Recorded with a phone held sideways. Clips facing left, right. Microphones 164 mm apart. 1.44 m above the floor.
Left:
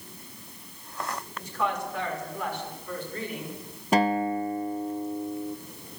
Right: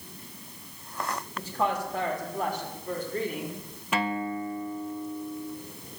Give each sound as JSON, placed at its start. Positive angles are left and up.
{"t": 1.4, "sound": "a woman speaking", "side_deg": -30, "distance_m": 3.0}
{"t": 3.9, "sound": "a guitar", "side_deg": 40, "distance_m": 0.7}